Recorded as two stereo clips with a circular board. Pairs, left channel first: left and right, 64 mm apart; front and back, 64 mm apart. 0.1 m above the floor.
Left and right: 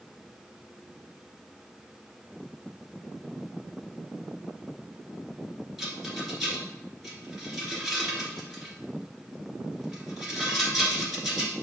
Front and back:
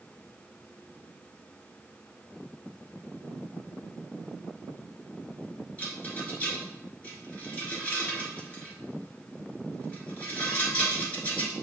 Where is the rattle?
5° right, 1.5 m.